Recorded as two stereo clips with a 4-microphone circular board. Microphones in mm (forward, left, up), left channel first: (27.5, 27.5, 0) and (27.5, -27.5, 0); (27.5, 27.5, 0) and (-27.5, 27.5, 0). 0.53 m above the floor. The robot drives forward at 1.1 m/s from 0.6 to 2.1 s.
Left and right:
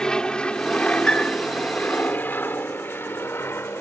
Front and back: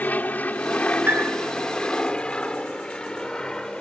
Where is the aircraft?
25° left; by 3.8 s 75° left.